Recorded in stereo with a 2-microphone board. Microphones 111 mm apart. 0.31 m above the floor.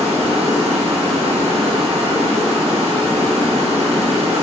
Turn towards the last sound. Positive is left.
turn(degrees=-65)  # may be behind; listen again after turning